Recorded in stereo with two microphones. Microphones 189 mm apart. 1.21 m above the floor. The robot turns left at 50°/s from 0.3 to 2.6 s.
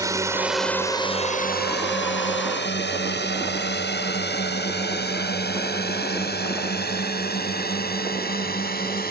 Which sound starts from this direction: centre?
A drone, at 0.0 s.